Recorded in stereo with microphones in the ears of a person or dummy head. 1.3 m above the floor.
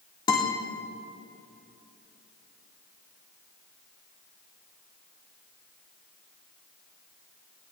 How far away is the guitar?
About 1.8 m.